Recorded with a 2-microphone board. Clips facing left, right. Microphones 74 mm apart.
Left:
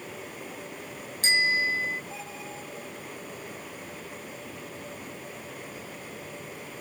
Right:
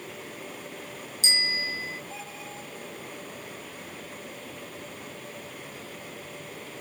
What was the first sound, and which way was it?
A bicycle bell, 50° left (ahead or behind).